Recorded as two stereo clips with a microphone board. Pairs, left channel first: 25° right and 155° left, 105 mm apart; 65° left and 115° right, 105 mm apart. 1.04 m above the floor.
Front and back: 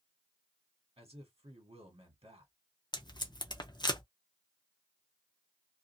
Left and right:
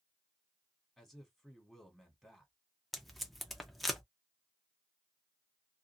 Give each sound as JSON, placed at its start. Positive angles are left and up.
{"t": 1.0, "sound": "a man speaking", "azimuth_deg": 160, "distance_m": 1.4}
{"t": 2.9, "sound": "tape being pulled", "azimuth_deg": -20, "distance_m": 0.6}